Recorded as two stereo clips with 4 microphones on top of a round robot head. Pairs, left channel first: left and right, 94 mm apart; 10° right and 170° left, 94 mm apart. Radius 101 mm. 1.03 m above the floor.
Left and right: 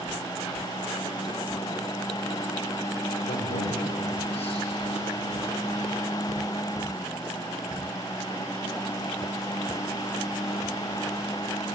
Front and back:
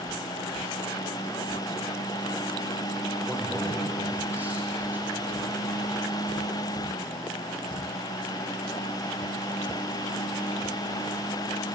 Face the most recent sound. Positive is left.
turn(degrees=105)